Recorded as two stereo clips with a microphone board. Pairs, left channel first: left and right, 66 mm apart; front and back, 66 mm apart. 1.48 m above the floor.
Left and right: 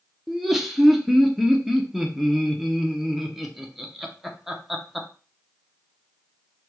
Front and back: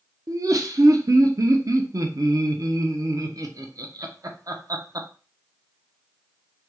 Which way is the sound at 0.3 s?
175° right.